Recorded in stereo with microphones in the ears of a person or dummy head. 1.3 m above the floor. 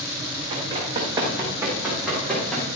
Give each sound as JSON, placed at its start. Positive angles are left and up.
{"t": 0.5, "sound": "running footsteps", "side_deg": -30, "distance_m": 4.5}